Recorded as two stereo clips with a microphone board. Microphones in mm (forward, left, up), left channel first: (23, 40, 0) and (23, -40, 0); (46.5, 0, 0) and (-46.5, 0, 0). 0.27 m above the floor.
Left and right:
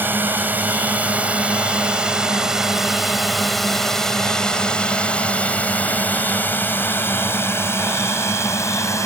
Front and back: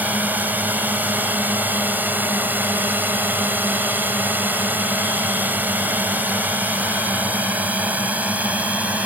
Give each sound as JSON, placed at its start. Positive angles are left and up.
{"t": 0.0, "sound": "a drone", "azimuth_deg": -125}